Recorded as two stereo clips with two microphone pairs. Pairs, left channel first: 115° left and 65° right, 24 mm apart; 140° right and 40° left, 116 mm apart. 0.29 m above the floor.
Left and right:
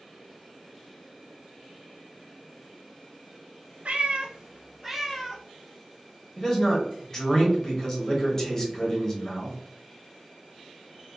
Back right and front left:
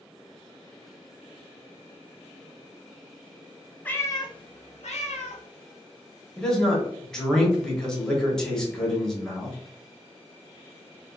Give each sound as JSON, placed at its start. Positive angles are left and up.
{"t": 3.9, "sound": "a cat meowing", "azimuth_deg": -65, "distance_m": 0.5}
{"t": 6.4, "sound": "a man speaking", "azimuth_deg": 150, "distance_m": 0.9}